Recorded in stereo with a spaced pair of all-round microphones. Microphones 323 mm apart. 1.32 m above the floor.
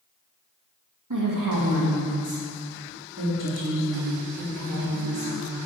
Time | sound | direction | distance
1.1 | a woman speaking | 70° right (ahead or behind) | 2.5 m